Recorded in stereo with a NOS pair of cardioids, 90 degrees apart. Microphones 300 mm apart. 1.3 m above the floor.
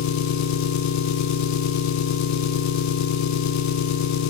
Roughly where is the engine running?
Ahead left.